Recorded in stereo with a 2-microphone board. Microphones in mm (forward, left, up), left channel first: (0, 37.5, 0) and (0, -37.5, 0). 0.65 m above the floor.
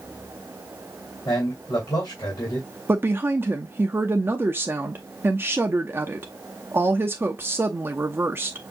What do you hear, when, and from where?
1.2 s a man speaking: 70° left (ahead or behind), 2.5 m
2.9 s a woman speaking: 30° right (ahead or behind), 0.6 m